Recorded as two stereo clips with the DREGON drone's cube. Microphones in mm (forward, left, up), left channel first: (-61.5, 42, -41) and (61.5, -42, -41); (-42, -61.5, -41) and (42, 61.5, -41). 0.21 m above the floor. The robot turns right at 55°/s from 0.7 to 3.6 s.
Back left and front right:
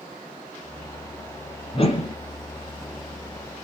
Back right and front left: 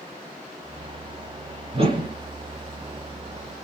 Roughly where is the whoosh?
Left.